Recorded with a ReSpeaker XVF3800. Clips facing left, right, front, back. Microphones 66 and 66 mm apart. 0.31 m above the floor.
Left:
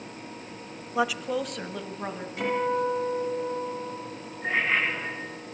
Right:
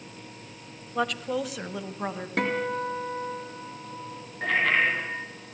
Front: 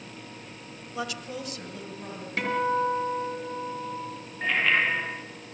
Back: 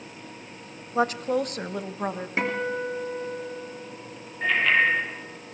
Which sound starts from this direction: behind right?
A guitar, at 2.4 s.